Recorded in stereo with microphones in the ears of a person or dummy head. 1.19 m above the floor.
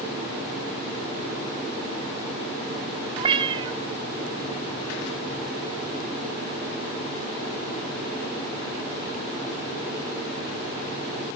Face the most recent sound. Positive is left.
turn(degrees=-30)  # may be behind; listen again after turning